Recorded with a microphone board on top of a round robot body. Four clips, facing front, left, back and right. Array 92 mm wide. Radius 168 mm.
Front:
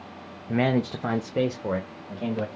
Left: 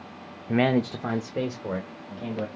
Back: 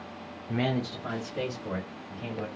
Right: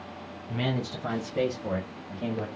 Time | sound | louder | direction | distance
0.5 | a man speaking | left 8 dB, front 6 dB | 70° left | 0.6 m